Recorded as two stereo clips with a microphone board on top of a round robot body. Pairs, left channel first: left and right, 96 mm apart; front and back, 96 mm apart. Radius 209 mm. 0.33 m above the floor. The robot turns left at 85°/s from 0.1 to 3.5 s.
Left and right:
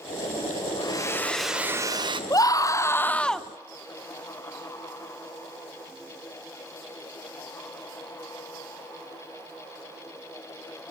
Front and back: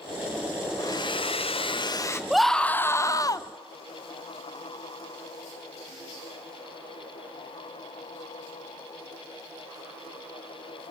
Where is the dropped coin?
I don't hear a dropped coin.